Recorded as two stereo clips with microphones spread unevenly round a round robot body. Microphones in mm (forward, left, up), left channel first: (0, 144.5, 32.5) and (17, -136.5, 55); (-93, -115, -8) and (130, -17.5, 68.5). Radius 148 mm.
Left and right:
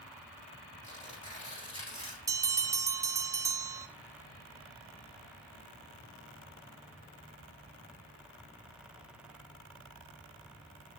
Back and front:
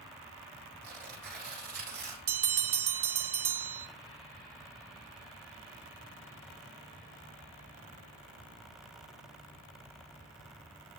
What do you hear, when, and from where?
0.8 s tearing paper: 25° left, 8.5 m
2.3 s a bell: 5° right, 1.2 m